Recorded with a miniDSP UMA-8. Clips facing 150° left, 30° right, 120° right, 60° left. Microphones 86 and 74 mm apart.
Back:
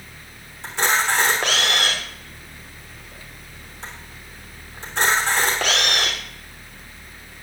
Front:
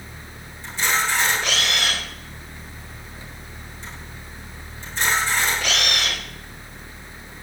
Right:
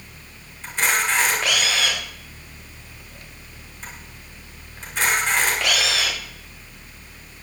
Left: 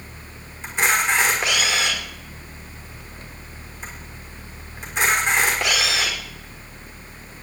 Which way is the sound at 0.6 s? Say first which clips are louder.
Back 2 dB, left 2 dB; 130° left.